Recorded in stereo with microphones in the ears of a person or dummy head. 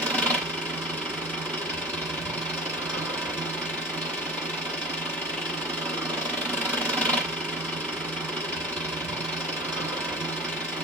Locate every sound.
0.0 s an engine running: 5° right (ahead or behind), 1.0 m